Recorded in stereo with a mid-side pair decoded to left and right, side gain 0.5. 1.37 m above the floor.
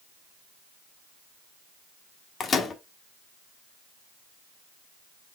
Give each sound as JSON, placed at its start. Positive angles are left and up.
{"t": 2.4, "sound": "a microwave", "azimuth_deg": 45, "distance_m": 1.2}